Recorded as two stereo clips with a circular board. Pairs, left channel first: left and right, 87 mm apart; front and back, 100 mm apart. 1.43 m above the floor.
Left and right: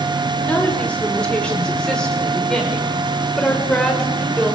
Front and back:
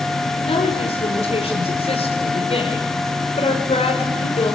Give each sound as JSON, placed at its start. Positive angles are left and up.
{"t": 0.5, "sound": "a woman speaking", "azimuth_deg": 15, "distance_m": 5.5}